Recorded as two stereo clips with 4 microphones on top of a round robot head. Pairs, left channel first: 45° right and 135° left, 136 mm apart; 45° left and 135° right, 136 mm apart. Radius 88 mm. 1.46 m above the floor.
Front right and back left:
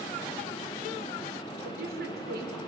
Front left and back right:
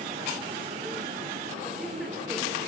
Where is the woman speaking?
135° left, 4.5 m.